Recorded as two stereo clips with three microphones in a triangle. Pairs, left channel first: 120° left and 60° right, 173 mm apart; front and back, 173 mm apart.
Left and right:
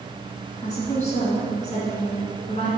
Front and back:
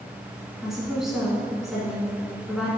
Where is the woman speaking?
95° left, 1.6 m.